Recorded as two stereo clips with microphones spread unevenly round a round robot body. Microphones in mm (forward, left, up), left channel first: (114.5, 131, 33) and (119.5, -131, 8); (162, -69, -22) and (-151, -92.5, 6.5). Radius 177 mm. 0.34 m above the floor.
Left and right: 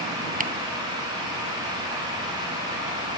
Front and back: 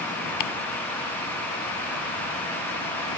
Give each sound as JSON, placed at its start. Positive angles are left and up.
{"t": 0.4, "sound": "ticking", "azimuth_deg": -25}